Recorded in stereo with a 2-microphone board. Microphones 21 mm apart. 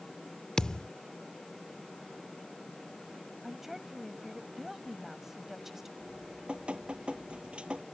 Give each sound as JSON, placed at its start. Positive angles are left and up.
{"t": 0.6, "sound": "a thud", "side_deg": 40}
{"t": 3.4, "sound": "a woman speaking", "side_deg": -5}
{"t": 6.0, "sound": "dripping", "side_deg": -60}